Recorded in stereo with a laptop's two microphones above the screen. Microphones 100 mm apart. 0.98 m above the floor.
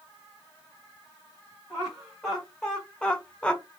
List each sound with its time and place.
1.7 s laughter: centre (ahead or behind), 1.1 m; by 3.6 s 10° left (ahead or behind), 0.8 m